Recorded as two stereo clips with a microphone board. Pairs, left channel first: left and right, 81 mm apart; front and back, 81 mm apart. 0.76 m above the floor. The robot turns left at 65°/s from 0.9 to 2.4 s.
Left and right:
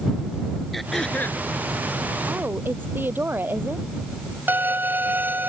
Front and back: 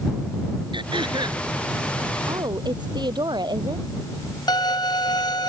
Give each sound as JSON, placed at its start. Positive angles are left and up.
{"t": 0.7, "sound": "throat clearing", "azimuth_deg": 180}
{"t": 2.3, "sound": "a woman speaking", "azimuth_deg": -145}
{"t": 4.5, "sound": "a violin", "azimuth_deg": -25}